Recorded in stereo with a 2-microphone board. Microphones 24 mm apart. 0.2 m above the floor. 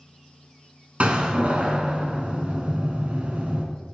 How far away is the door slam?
About 1.1 m.